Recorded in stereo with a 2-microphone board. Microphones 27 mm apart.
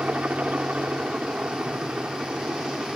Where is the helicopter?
60° right (ahead or behind); by 3.0 s 65° right (ahead or behind).